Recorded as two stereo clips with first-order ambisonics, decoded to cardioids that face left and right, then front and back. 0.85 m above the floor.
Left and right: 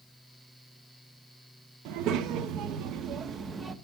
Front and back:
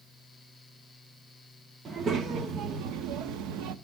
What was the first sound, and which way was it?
A child speaking, 115° right.